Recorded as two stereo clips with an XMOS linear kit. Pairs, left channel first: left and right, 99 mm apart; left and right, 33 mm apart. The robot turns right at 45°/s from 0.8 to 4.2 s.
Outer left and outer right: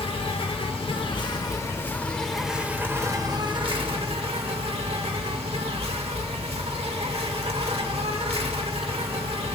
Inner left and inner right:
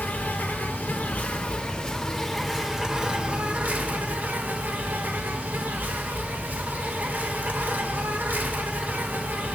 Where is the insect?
110° left, 0.9 m; by 9.6 s 100° right, 0.9 m.